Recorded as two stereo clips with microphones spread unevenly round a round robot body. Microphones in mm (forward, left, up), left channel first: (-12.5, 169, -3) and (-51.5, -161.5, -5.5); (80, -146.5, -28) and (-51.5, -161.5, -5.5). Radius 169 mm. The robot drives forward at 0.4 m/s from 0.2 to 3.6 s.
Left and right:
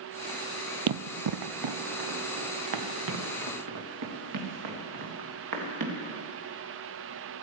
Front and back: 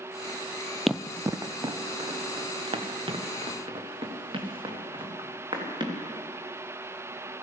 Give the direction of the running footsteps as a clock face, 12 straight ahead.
3 o'clock.